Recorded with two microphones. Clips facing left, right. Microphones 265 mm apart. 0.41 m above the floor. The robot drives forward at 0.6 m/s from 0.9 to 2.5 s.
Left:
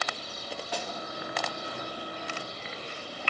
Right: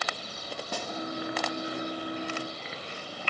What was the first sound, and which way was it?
A snare drum, 50° right (ahead or behind).